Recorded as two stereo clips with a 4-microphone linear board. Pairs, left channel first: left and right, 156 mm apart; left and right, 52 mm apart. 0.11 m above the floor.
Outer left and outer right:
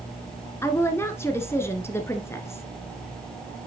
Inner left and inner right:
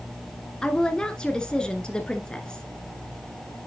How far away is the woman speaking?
About 1.1 m.